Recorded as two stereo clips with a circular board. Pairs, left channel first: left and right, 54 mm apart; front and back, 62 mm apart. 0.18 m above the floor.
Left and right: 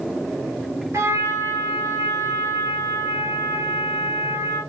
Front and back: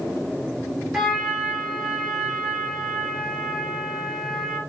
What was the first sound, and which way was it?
A trumpet, 95° right.